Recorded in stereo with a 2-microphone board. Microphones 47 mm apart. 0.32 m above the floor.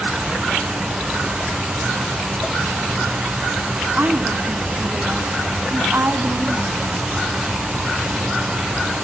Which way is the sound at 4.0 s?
40° right (ahead or behind).